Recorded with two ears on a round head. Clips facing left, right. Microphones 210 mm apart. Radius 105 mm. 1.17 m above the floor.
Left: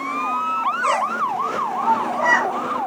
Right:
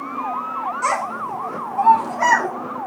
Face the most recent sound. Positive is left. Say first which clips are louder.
# left 3 dB
turn(degrees=-85)